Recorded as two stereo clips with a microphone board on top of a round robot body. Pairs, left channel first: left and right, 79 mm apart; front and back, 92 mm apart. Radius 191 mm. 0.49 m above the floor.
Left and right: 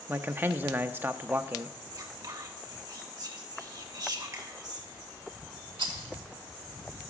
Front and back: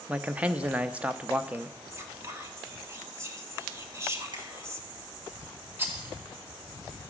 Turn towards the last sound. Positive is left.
turn(degrees=-110)